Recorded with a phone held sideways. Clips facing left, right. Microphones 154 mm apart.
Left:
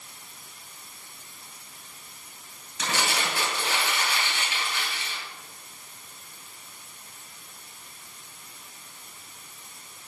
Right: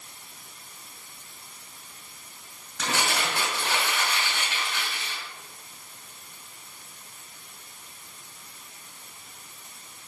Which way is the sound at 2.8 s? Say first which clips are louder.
Right 1 dB; 70° right (ahead or behind).